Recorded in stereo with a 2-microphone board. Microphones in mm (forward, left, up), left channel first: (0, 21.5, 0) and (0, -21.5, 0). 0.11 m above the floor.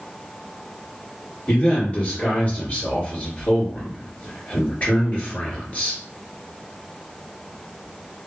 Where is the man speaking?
35° left (ahead or behind), 1.6 m.